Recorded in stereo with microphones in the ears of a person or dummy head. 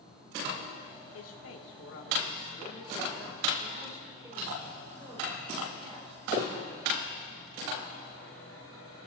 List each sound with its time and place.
1.1 s a man speaking: 90° left, 3 m; by 7.1 s 40° right (ahead or behind), 7 m